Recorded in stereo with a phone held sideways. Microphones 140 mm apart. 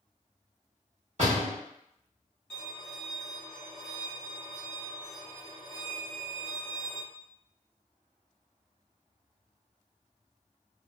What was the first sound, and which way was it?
A door slam, 55° right (ahead or behind).